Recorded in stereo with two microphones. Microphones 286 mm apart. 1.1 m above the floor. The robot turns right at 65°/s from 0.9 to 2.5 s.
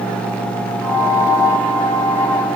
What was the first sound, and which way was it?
Only background noise.